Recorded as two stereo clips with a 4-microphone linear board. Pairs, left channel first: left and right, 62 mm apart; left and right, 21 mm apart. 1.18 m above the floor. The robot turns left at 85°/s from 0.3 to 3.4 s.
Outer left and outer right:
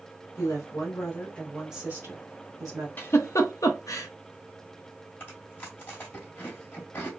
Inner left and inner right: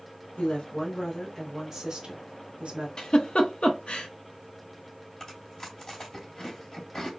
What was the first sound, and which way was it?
A woman speaking, 105° left.